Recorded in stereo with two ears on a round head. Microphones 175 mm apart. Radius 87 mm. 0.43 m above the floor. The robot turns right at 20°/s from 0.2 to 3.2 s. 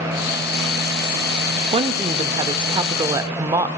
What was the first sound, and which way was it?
A woman speaking, 25° right (ahead or behind).